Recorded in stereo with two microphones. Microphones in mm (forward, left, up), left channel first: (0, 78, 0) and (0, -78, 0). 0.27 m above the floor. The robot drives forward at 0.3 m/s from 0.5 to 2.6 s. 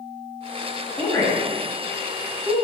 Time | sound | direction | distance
1.0 | a woman speaking | 30° left (ahead or behind) | 1.1 m